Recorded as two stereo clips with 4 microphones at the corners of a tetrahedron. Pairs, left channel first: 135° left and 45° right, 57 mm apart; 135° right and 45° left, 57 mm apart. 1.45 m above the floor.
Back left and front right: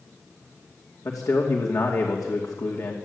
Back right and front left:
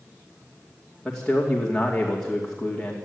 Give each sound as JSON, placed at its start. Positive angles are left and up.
{"t": 1.1, "sound": "a man speaking", "azimuth_deg": 125, "distance_m": 2.5}